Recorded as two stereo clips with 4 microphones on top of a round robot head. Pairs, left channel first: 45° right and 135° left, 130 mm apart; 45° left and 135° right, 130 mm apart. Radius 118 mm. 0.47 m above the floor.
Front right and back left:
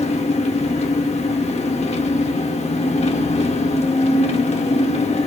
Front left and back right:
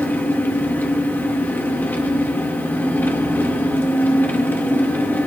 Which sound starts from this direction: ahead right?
An engine running, at 0.0 s.